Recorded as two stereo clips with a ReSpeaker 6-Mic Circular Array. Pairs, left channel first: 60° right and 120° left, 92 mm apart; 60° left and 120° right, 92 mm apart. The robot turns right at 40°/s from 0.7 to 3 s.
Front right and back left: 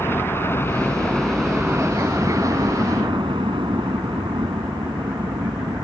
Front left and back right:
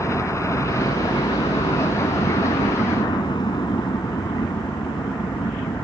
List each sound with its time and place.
0.0 s a helicopter: 5° left; by 5.8 s 95° left